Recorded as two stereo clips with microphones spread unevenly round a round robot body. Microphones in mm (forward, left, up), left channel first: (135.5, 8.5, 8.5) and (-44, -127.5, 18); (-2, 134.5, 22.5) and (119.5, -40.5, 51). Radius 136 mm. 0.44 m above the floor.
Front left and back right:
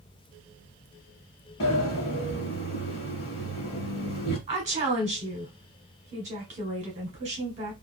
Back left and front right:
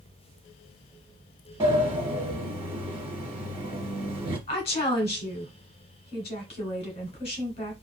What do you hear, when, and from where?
1.6 s a sliding door: 10° left, 1.2 m
4.5 s a woman speaking: 165° left, 1.2 m